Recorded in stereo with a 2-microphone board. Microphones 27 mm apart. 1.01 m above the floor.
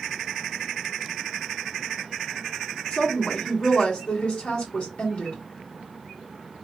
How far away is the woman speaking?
About 2.5 m.